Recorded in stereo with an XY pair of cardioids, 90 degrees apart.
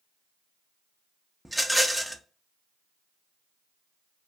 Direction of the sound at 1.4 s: Straight ahead.